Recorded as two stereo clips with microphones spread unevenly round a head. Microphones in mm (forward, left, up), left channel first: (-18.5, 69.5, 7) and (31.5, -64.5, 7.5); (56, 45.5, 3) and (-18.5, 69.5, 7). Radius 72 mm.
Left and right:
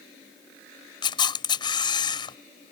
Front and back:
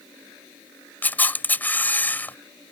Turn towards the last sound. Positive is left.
turn(degrees=50)